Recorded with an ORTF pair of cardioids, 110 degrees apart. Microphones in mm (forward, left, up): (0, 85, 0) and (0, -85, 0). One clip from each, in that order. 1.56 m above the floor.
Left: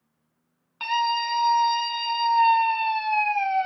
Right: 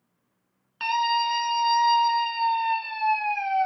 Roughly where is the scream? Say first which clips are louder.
Right 1 dB; ahead.